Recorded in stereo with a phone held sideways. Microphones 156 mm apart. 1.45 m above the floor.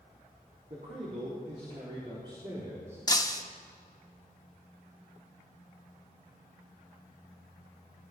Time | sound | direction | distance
0.7 | a man speaking | 65° right (ahead or behind) | 4 m
3.1 | breaking glass | 25° left (ahead or behind) | 1.1 m